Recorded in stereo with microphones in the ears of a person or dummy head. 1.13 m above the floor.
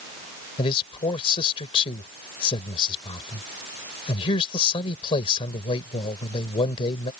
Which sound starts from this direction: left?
A man speaking, at 0.6 s.